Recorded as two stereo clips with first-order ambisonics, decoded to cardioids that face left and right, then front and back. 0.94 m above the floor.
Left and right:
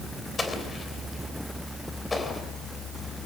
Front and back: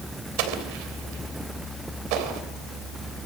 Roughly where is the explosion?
Behind.